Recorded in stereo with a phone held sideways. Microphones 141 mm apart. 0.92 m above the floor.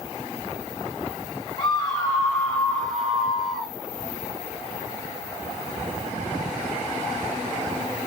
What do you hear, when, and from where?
1.6 s a scream: 35° left (ahead or behind), 1.8 m; by 3.7 s centre (ahead or behind), 2 m